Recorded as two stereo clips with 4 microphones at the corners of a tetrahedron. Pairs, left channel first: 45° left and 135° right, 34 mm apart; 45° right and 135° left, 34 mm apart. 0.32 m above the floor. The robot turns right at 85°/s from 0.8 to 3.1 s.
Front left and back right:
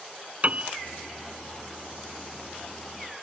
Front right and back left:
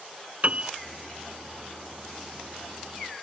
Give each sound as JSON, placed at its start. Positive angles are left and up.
{"t": 0.4, "sound": "a piano", "azimuth_deg": -175}